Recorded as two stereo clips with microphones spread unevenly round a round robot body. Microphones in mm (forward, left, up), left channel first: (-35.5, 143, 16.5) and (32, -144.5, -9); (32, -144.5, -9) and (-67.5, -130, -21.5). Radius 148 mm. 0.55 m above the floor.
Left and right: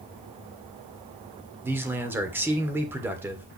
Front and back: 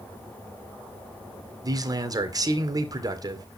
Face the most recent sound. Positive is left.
turn(degrees=-155)